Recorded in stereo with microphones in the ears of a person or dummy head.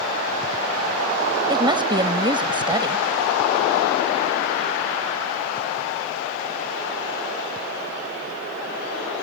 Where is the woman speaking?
10° right (ahead or behind).